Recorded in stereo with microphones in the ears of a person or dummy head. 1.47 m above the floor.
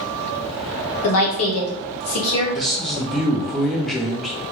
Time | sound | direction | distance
1.0 | a woman speaking | 75° left (ahead or behind) | 1.1 m
2.5 | a man speaking | centre (ahead or behind) | 0.6 m